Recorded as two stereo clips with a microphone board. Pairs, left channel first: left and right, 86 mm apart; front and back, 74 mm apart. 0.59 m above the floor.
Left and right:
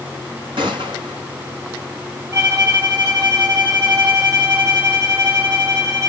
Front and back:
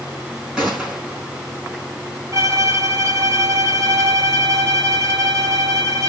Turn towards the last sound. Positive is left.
turn(degrees=-135)